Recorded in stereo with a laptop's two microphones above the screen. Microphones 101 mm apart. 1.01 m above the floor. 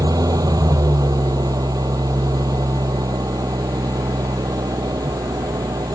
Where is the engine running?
40° right (ahead or behind).